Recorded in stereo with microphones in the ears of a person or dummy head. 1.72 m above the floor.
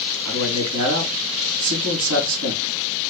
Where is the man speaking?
85° right, 2.5 m.